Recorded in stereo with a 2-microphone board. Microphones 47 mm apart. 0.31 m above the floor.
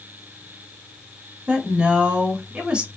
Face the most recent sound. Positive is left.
turn(degrees=-25)  # may be behind; listen again after turning